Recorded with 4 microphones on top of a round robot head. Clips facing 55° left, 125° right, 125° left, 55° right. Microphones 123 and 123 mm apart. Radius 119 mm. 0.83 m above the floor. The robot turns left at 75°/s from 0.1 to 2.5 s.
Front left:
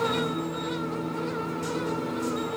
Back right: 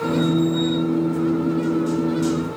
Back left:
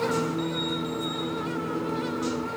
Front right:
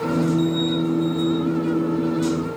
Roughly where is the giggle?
No giggle in this recording.